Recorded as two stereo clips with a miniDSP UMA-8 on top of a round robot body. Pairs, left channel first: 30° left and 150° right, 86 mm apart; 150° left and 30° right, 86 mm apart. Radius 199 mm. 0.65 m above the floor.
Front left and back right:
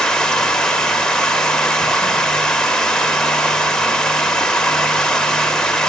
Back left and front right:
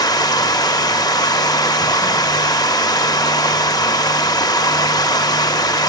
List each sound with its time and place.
0.0 s running water: 110° left, 1.2 m